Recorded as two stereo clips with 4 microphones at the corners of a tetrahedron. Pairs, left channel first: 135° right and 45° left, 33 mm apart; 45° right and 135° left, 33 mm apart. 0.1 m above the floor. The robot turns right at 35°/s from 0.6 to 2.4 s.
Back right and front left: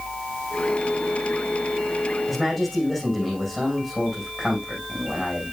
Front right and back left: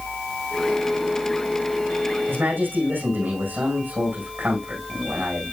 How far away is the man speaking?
About 7.5 m.